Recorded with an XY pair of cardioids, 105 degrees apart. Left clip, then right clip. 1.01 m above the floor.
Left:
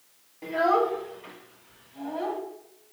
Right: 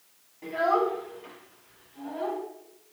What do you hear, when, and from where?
0.4 s a child speaking: 25° left, 2.5 m; by 2.4 s 55° left, 5 m